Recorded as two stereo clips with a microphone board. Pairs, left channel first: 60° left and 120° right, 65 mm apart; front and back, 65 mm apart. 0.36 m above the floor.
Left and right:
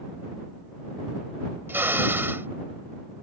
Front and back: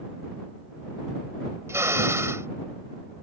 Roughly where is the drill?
Behind.